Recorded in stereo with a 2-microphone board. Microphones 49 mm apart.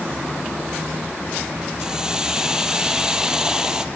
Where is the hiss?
10° right (ahead or behind), 1.5 m.